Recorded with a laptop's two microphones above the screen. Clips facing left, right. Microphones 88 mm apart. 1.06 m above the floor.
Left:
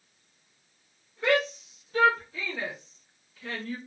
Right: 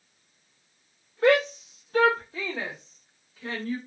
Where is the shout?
80° right, 0.6 m; by 3.8 s 25° right (ahead or behind), 1.6 m.